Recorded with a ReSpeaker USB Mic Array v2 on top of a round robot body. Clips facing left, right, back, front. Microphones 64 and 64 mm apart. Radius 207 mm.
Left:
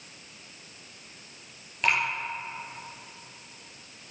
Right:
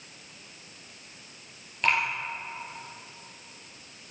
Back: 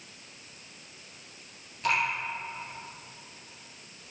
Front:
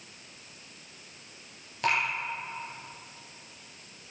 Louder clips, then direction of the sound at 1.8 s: Even, even; straight ahead.